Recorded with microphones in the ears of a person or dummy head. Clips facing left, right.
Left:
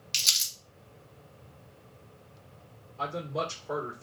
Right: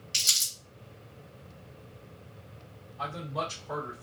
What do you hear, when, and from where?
0.1 s crumpling: 55° left (ahead or behind), 1.7 m
3.0 s a man speaking: 50° left (ahead or behind), 1.4 m